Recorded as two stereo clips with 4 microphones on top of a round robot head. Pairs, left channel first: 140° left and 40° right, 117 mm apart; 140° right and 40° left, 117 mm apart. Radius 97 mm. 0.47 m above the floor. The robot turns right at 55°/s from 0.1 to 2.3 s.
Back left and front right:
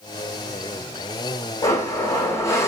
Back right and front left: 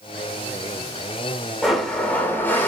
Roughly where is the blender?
Behind left.